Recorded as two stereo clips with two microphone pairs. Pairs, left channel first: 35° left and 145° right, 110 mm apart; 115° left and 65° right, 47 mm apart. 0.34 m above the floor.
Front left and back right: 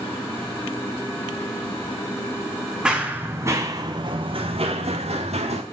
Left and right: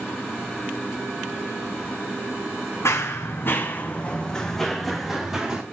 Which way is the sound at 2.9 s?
135° left.